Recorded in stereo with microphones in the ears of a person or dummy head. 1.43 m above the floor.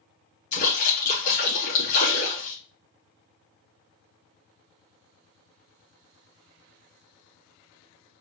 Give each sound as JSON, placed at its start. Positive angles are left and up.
{"t": 0.5, "sound": "a splash", "side_deg": 80, "distance_m": 3.0}